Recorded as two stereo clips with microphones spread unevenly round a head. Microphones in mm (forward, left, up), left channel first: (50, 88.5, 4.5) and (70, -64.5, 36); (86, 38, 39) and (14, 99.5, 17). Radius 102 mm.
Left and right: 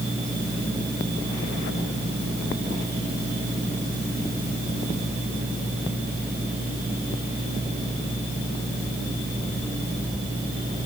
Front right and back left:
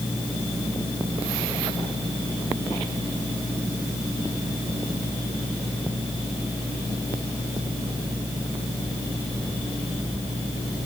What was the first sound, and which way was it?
Only background noise.